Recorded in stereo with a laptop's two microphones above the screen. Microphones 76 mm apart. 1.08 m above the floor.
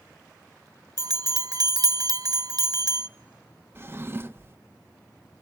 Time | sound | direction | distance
1.0 | a bell | 55° right (ahead or behind) | 0.5 m
3.8 | a drawer | 30° right (ahead or behind) | 0.7 m